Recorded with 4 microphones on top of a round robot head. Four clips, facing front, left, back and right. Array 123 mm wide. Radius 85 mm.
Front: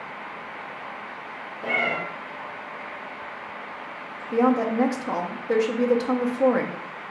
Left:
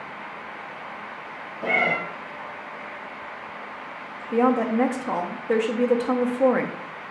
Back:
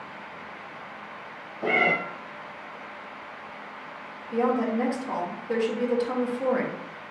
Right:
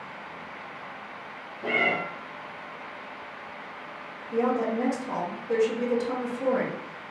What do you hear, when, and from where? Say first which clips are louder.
1.6 s a cat meowing: left 3 dB, back 3 dB; 135° left, 2.5 m
4.3 s a woman speaking: left 5 dB, front 4 dB; 60° left, 0.8 m